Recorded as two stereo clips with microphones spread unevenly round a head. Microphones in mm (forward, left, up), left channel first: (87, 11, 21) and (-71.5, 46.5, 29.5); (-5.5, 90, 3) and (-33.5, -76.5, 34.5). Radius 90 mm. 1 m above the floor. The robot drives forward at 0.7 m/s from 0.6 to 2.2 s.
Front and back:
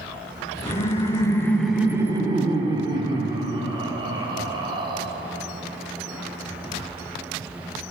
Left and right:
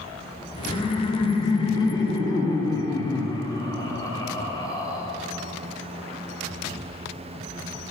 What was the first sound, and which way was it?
Laughter, 25° left.